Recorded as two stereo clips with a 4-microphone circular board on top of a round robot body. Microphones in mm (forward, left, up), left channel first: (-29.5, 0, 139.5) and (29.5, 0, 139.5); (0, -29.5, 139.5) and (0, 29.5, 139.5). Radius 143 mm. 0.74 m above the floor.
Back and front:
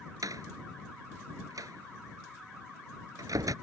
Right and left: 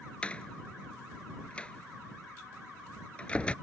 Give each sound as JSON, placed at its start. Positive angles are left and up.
{"t": 0.2, "sound": "a door slam", "azimuth_deg": -20}